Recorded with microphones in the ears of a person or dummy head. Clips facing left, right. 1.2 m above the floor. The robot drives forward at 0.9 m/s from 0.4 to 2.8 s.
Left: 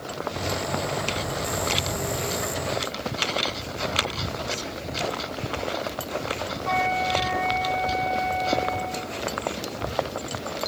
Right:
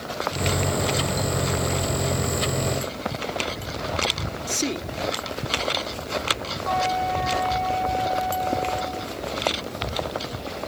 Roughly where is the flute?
Left.